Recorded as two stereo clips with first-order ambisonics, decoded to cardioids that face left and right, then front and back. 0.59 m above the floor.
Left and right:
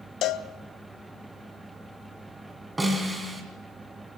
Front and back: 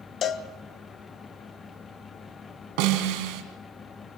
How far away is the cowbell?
About 0.8 m.